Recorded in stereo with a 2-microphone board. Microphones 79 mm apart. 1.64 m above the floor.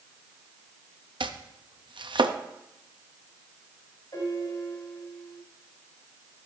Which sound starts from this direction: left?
A piano, at 4.1 s.